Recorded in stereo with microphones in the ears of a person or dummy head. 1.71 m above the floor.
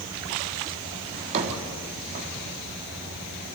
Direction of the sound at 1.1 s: 30° right (ahead or behind).